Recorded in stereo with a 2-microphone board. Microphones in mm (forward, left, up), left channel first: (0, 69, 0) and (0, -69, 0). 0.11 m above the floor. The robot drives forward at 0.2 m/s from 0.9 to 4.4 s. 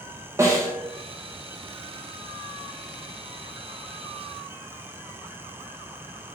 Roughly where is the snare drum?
Right.